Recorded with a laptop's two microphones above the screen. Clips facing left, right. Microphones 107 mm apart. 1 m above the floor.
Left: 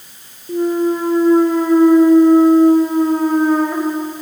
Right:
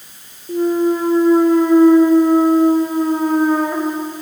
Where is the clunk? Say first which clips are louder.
Right 1 dB; centre (ahead or behind), 0.5 m.